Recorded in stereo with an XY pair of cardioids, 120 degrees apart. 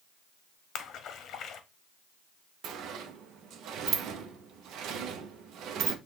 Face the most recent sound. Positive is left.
turn(degrees=-70)